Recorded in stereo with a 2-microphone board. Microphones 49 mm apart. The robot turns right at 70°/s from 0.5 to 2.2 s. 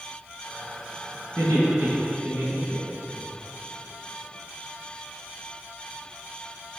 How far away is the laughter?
About 4 m.